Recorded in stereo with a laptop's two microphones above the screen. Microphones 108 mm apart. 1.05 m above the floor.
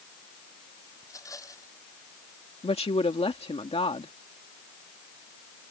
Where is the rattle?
30° left (ahead or behind).